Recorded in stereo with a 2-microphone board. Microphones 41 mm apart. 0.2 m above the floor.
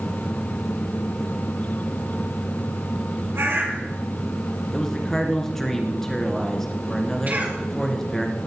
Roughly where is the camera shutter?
I don't hear a camera shutter.